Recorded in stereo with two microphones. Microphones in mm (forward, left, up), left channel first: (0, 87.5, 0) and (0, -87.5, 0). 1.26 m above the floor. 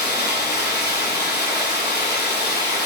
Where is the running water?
85° left, 5.5 m.